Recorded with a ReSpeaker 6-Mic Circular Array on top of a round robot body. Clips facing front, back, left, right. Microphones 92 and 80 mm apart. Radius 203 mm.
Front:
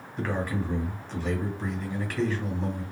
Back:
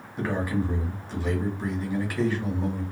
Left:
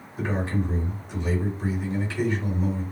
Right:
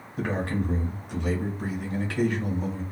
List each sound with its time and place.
0.2 s a man speaking: 100° right, 1.6 m